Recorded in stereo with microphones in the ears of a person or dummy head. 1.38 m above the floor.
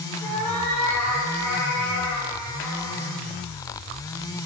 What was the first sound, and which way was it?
A cat meowing, 5° left (ahead or behind).